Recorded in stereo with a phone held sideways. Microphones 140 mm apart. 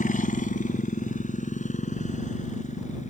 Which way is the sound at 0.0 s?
75° left (ahead or behind).